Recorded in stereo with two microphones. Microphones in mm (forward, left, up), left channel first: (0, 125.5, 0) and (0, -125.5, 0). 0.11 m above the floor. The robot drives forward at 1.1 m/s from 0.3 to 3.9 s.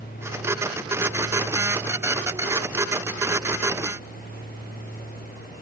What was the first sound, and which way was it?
Only background noise.